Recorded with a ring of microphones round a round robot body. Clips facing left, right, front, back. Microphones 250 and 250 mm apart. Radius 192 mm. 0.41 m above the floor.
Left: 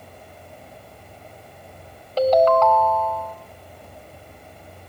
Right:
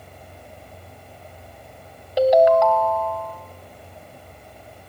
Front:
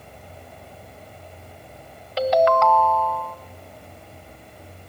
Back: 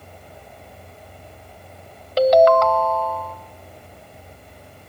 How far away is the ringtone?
About 0.6 m.